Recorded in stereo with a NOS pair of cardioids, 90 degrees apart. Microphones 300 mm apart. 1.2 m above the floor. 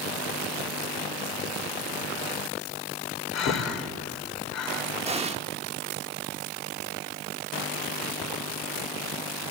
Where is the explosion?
20° right, 1.4 m.